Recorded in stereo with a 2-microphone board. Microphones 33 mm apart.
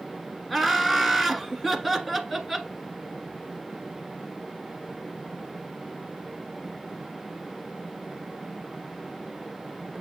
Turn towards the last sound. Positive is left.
turn(degrees=0)  # may be behind; listen again after turning